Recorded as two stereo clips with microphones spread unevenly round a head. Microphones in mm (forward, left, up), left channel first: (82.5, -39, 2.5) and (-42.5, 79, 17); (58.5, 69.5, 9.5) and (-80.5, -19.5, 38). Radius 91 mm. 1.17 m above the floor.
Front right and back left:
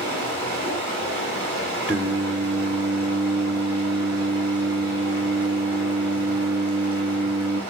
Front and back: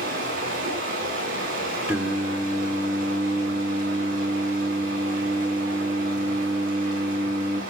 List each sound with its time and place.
0.0 s running water: 125° right, 8 m
1.9 s singing: 170° right, 0.9 m